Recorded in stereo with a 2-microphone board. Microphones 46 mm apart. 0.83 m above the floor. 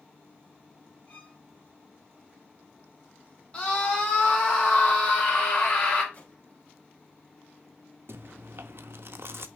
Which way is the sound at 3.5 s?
30° left (ahead or behind).